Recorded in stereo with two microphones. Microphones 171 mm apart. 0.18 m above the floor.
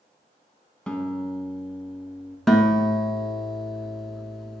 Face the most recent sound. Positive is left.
turn(degrees=0)  # may be behind; listen again after turning